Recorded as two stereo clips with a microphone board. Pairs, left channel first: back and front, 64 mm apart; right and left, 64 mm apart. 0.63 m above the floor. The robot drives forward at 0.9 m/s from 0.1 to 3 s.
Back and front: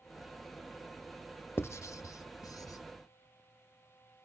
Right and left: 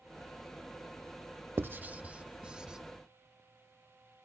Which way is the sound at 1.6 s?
135° left.